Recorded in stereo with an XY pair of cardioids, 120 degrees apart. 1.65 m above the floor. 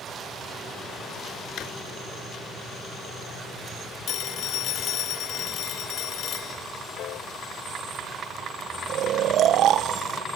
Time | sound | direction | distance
1.6 | a drawer | 70° left | ?
4.1 | a phone ringing | 65° left | ?
7.0 | a piano | 70° left | ?
8.9 | snoring | 65° right | ?